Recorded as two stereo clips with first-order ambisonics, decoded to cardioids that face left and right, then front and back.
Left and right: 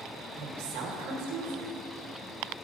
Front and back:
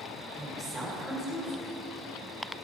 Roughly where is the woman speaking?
Right.